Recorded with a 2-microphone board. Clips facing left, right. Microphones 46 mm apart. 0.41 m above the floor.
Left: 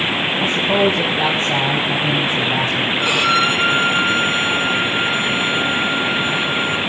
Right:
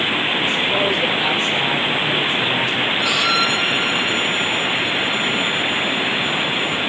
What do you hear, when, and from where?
0.4 s a man speaking: 45° left (ahead or behind), 3 m
3.0 s a violin: 40° left (ahead or behind), 5.5 m